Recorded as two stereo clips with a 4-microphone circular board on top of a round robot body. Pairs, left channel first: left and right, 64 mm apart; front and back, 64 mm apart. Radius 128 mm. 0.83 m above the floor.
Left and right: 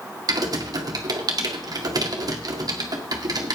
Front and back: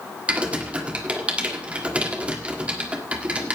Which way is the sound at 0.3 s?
110° right.